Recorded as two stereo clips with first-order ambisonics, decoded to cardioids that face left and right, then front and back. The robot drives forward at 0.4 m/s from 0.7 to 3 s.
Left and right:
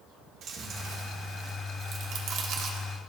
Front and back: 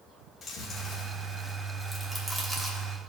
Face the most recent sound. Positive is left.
turn(degrees=-120)